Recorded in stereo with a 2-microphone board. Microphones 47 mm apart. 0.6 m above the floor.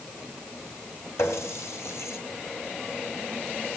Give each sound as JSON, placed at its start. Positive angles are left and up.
{"t": 1.2, "sound": "a running tap", "side_deg": 70, "distance_m": 2.5}